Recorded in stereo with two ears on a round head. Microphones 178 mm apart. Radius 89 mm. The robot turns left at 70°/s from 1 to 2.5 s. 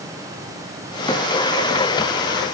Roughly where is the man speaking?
I don't hear a man speaking.